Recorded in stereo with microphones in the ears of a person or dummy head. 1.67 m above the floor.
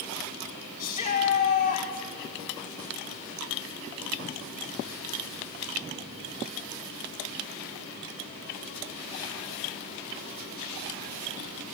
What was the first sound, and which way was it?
A shout, 45° left (ahead or behind).